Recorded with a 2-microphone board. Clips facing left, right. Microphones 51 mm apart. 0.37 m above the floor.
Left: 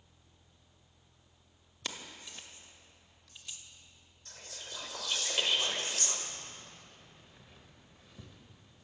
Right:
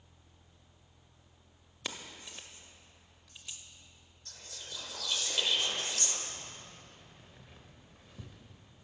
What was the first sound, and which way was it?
Keys jangling, 10° right (ahead or behind).